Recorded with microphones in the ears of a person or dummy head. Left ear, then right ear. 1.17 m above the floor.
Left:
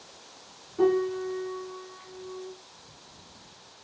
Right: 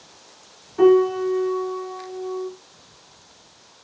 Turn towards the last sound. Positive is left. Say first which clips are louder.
# right 9 dB
turn(degrees=-45)  # may be behind; listen again after turning